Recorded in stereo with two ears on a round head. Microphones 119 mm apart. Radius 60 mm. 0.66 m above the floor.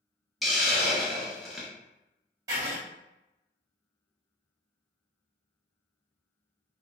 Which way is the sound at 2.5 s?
25° right (ahead or behind).